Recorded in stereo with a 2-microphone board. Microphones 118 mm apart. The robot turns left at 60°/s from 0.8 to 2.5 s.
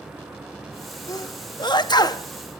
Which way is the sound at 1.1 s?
30° left (ahead or behind).